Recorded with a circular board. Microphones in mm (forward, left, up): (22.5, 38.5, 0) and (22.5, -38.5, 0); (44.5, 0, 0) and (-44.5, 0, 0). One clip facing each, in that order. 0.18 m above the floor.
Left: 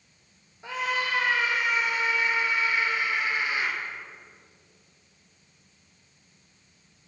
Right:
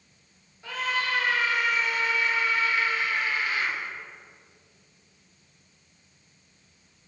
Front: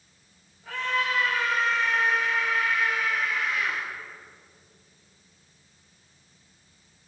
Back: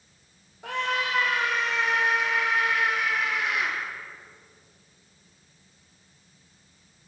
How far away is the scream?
About 6.5 m.